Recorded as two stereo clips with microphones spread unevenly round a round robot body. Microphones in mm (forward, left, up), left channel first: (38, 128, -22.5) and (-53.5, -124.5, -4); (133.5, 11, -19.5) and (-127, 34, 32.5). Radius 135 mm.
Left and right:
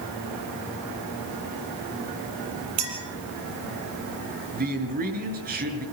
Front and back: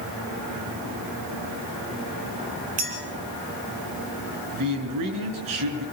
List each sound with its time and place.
2.8 s a clink: 125° right, 5.5 m
4.5 s a man speaking: 165° right, 5 m